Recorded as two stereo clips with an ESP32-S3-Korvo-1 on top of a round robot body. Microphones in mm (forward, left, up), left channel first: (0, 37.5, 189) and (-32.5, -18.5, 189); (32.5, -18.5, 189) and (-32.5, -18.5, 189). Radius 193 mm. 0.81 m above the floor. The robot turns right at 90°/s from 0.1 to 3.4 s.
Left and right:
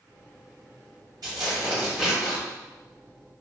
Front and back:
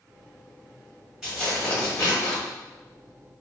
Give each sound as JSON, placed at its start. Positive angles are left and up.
{"t": 1.2, "sound": "tearing paper", "azimuth_deg": -100, "distance_m": 0.8}